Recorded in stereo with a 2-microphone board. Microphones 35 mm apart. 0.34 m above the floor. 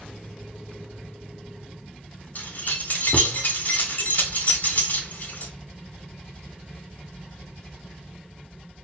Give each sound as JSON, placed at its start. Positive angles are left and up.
{"t": 2.4, "sound": "keys jangling", "side_deg": 50, "distance_m": 1.0}